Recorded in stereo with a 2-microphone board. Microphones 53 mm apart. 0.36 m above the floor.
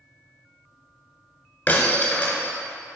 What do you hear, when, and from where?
1.7 s breaking glass: 30° left (ahead or behind), 1.1 m